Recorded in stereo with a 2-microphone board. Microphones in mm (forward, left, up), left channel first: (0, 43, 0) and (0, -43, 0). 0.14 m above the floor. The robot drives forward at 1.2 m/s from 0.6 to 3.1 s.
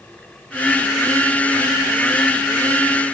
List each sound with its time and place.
Only background noise.